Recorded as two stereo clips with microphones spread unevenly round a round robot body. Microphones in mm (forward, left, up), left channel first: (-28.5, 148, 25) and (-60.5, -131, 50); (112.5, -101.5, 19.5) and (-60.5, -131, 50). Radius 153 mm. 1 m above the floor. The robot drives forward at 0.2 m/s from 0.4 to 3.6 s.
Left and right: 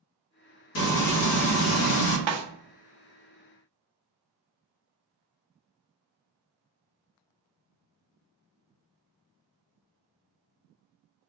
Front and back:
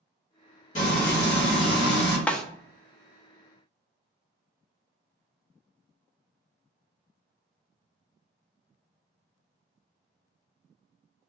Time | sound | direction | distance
0.8 | frying | 55° left | 0.9 m
2.3 | a snare drum | 75° right | 0.5 m